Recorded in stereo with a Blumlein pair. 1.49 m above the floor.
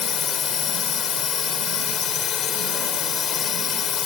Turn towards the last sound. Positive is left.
turn(degrees=25)